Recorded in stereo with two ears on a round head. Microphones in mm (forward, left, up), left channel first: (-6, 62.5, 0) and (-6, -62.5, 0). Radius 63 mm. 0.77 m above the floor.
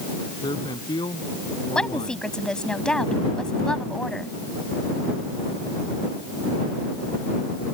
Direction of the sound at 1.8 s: 5° left (ahead or behind).